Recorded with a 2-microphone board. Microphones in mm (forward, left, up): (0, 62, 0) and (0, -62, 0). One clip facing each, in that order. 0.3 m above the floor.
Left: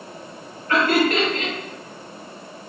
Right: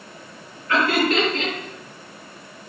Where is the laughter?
40° left (ahead or behind), 2.0 m.